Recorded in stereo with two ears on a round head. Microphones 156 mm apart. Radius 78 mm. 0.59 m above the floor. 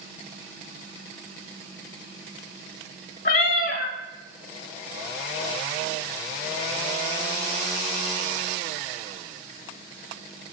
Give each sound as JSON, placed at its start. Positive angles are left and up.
{"t": 3.2, "sound": "a cat meowing", "side_deg": 50, "distance_m": 0.7}